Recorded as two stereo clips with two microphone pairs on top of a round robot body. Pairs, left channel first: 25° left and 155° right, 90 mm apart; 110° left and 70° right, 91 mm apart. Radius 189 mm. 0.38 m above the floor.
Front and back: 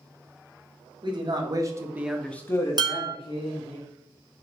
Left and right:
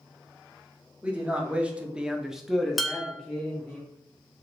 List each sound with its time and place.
1.0 s a man speaking: 140° right, 1.3 m; by 3.8 s 25° left, 1.6 m
2.8 s dishes clattering: 150° right, 0.8 m